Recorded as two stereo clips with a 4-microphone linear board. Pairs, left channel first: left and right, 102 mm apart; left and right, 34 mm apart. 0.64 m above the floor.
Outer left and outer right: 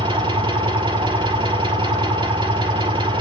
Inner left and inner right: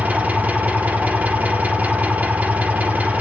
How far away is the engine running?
About 3.5 m.